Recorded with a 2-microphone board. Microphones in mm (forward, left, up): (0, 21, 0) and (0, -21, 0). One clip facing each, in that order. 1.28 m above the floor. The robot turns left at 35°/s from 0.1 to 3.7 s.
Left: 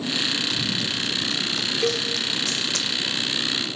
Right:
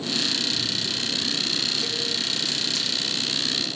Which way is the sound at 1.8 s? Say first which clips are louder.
Left 6 dB; 50° left (ahead or behind).